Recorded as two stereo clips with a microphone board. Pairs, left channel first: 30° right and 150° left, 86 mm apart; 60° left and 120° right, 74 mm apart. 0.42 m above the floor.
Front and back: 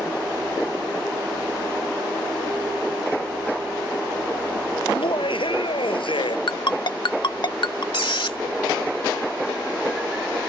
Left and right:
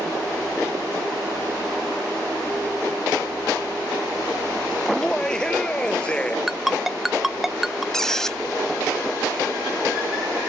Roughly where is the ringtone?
Ahead right.